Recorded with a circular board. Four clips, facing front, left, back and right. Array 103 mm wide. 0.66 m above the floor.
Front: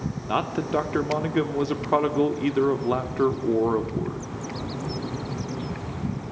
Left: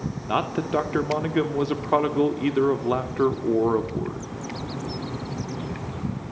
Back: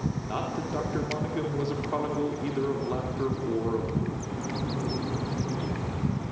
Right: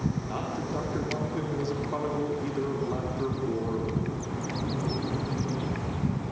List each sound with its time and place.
0.3 s a man speaking: 50° left, 2 m